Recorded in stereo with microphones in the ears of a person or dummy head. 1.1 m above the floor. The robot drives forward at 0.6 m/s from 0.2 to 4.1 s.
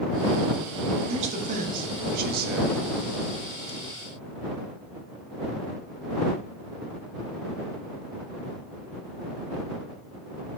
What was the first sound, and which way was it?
A man speaking, 35° right (ahead or behind).